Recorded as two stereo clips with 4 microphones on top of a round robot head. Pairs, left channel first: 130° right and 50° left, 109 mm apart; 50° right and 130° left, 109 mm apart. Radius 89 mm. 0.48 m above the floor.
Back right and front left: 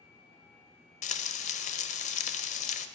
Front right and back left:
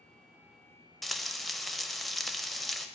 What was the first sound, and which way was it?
Frying, 140° right.